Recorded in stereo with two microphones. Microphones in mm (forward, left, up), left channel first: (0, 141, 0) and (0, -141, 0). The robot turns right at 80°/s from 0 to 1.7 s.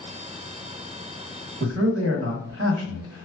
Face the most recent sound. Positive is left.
turn(degrees=-45)  # may be behind; listen again after turning